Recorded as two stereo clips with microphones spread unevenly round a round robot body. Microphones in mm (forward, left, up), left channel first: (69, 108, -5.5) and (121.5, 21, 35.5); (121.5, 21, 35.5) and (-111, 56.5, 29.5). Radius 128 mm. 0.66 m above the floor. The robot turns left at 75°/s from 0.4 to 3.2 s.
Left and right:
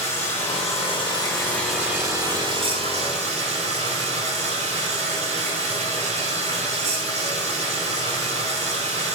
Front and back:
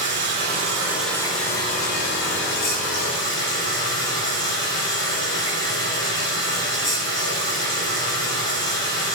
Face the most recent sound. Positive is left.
turn(degrees=-80)